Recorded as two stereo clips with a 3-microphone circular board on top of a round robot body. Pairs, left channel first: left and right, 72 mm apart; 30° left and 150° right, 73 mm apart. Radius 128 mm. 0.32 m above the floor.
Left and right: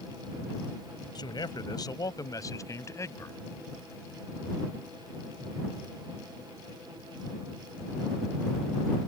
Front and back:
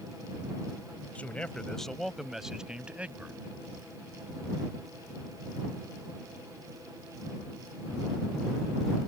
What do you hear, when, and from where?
1.1 s a man speaking: 100° left; by 3.4 s 140° left